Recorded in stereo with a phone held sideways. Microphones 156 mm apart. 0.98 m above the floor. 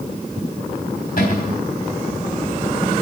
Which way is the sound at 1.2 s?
85° left.